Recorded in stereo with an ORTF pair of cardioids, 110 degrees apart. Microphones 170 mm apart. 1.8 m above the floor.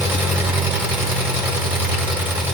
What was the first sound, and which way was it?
An engine running, 10° right.